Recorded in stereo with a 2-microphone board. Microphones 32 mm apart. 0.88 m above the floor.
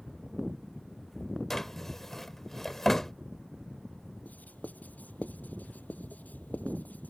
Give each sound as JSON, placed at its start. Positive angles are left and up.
{"t": 1.5, "sound": "a drawer", "side_deg": 10}
{"t": 4.2, "sound": "writing", "side_deg": 65}